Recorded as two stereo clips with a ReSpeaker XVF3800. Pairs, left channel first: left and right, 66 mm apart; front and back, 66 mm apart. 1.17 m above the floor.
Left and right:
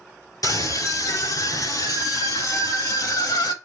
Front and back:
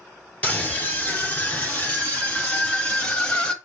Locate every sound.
0.4 s a scream: 70° left, 3.5 m; by 3.5 s 75° left, 1.8 m